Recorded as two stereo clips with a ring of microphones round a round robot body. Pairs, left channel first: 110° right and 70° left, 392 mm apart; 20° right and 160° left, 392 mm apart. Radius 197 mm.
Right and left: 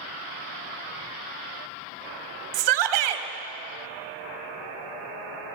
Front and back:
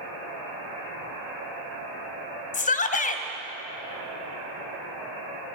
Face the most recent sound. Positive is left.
turn(degrees=50)